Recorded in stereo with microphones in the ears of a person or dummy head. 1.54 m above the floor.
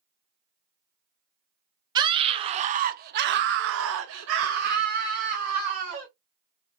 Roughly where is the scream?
Right.